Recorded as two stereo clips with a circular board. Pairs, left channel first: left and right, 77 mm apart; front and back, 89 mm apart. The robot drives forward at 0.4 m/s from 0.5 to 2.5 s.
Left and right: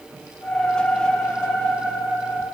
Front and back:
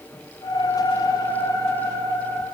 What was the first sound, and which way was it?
Only background noise.